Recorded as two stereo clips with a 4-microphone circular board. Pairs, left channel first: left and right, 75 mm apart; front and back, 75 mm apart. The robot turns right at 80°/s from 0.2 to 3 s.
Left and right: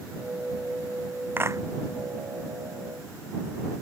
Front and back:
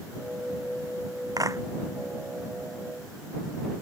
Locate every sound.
1.4 s a clap: 150° right; by 1.6 s 130° right